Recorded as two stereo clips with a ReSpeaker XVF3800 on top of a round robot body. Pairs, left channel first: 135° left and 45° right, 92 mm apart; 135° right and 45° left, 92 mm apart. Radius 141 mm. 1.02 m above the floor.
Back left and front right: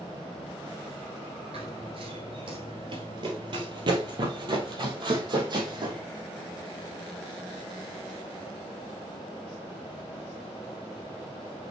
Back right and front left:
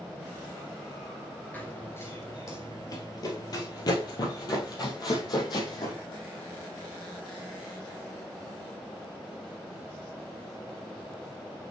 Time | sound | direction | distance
1.5 | running footsteps | 65° right | 1.2 m